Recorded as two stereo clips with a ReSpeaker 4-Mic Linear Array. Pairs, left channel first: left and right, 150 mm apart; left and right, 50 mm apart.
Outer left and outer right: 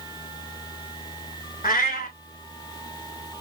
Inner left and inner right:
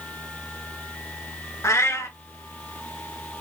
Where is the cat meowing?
80° left, 0.8 m.